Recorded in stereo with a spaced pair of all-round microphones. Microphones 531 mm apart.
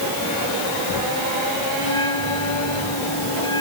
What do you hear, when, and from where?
1.8 s a bell: 65° left (ahead or behind)